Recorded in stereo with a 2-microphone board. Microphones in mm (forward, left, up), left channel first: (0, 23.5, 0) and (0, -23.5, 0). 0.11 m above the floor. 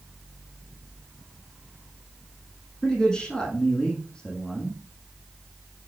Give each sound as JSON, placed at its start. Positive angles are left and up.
{"t": 2.8, "sound": "a man speaking", "side_deg": 20, "distance_m": 6.0}